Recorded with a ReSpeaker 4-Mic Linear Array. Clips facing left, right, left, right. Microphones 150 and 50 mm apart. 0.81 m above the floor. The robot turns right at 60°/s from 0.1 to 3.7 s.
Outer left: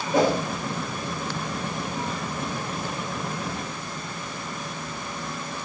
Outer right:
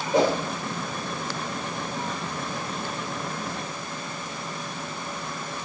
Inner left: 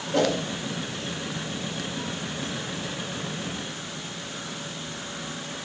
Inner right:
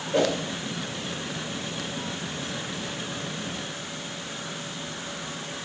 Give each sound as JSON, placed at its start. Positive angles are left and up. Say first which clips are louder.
{"t": 0.1, "sound": "a whoosh", "louder": "even, even", "side_deg": -20, "distance_m": 2.5}